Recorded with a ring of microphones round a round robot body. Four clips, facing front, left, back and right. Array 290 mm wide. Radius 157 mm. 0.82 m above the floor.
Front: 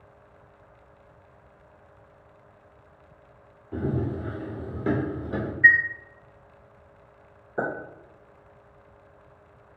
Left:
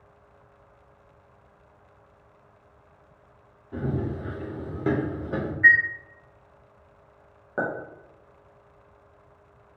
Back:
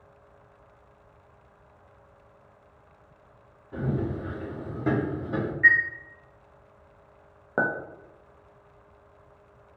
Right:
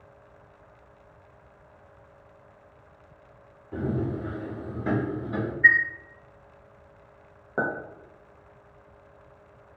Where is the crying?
No crying in this recording.